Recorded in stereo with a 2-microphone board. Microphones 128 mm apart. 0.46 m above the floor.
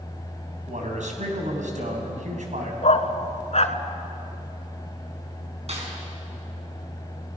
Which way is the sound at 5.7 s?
55° right (ahead or behind).